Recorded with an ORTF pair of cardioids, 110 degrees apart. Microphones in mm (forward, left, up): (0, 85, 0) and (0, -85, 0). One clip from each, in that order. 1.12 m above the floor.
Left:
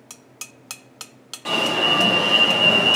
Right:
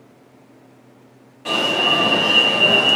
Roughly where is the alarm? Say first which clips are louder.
Right 2 dB; ahead left.